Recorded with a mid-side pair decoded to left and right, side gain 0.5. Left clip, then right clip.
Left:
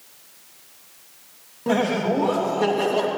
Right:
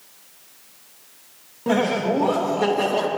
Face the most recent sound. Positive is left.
turn(degrees=-10)